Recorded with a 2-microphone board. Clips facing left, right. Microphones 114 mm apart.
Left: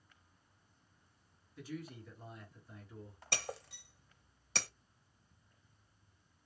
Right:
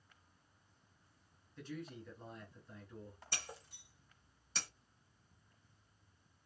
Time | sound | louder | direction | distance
1.6 | a man speaking | left 1 dB | 5° left (ahead or behind) | 1.4 m
3.3 | breaking glass | left 9 dB | 65° left (ahead or behind) | 0.6 m